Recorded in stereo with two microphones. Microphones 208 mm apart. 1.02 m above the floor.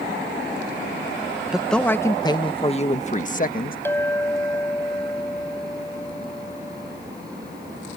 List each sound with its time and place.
1.5 s a man speaking: 5° right (ahead or behind); by 3.8 s 45° left (ahead or behind)
3.9 s a clink: 10° left (ahead or behind)